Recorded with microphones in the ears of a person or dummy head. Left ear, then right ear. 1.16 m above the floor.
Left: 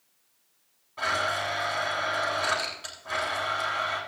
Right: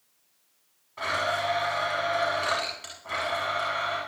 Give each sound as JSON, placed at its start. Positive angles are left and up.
{"t": 1.0, "sound": "a blender", "side_deg": -15, "distance_m": 8.5}